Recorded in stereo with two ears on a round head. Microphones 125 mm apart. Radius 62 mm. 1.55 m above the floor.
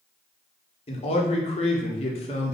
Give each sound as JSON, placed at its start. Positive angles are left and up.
{"t": 0.9, "sound": "a man speaking", "side_deg": 45, "distance_m": 0.9}